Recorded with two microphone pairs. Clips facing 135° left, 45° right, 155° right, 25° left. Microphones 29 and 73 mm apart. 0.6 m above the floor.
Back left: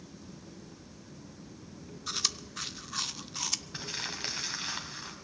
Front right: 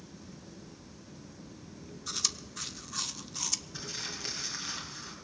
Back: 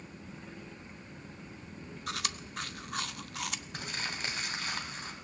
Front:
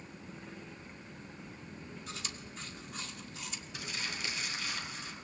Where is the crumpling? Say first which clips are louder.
Back left 2 dB, front 1 dB; 160° left, 3 m.